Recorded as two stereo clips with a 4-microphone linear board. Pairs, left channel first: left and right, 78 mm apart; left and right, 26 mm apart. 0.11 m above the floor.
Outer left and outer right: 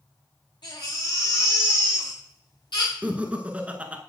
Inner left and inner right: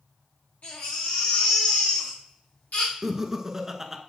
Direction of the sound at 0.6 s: 75° left (ahead or behind).